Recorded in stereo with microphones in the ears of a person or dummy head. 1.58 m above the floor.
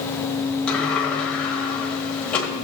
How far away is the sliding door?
About 1.8 m.